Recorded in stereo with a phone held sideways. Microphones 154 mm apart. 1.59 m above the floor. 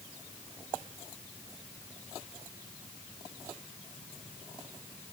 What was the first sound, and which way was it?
Only background noise.